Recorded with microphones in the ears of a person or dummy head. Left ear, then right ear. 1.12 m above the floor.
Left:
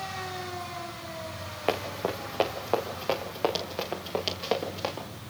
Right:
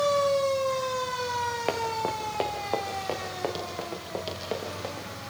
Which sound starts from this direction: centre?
Running footsteps, at 1.7 s.